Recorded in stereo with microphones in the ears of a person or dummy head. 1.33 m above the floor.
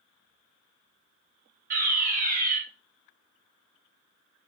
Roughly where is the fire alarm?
Right.